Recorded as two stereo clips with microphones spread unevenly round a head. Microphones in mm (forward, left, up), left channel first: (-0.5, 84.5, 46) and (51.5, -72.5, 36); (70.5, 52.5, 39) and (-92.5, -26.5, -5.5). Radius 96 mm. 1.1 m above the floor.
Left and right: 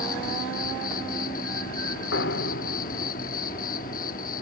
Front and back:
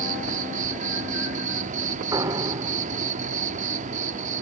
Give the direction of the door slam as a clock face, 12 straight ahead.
8 o'clock.